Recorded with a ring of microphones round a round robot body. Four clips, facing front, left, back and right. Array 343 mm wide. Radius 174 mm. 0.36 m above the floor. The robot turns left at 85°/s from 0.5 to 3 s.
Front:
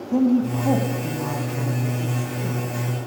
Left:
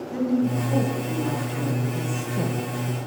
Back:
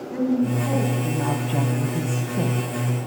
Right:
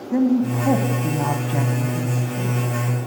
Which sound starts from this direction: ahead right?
A woman speaking, at 0.1 s.